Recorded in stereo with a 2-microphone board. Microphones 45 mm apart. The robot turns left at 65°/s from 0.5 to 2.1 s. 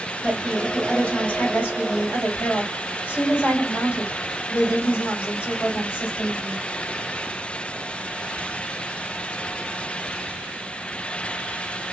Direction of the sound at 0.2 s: 175° right.